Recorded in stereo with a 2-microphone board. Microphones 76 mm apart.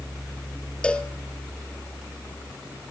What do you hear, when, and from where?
0.8 s a cowbell: 10° left (ahead or behind), 1.1 m